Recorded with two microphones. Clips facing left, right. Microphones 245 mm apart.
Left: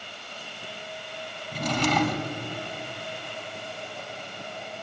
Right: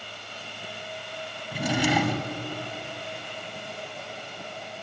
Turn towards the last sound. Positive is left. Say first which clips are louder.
# right 1 dB
turn(degrees=-10)  # may be behind; listen again after turning